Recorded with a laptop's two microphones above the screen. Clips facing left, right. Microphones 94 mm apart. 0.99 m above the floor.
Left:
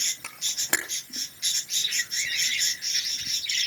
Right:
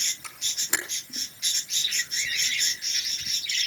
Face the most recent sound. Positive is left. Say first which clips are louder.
# left 5 dB
turn(degrees=70)  # may be behind; listen again after turning